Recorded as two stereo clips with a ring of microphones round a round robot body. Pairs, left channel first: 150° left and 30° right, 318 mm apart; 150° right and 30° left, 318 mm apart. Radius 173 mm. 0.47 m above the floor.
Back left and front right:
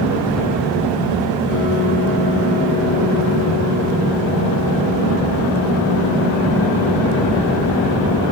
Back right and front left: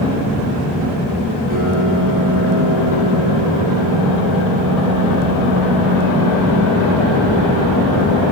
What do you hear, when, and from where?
1.5 s a piano: 95° left, 6 m